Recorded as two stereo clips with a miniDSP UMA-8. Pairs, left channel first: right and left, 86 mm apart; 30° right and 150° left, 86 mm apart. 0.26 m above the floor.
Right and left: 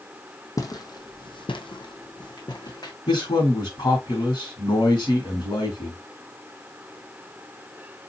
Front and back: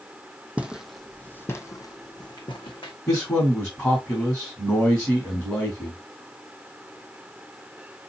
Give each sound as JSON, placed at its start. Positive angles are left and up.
{"t": 0.6, "sound": "footsteps", "azimuth_deg": -140, "distance_m": 0.6}
{"t": 3.1, "sound": "a man speaking", "azimuth_deg": -100, "distance_m": 2.0}